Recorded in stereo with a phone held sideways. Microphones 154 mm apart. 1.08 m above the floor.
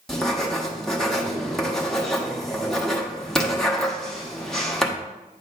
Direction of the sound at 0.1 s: 5° left (ahead or behind).